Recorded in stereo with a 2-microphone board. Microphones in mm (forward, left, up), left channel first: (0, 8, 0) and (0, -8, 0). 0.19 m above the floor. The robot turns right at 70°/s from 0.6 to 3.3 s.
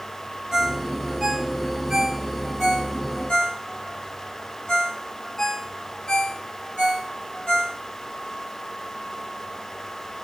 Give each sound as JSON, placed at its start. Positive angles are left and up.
{"t": 0.5, "sound": "a ringtone", "side_deg": -45, "distance_m": 2.0}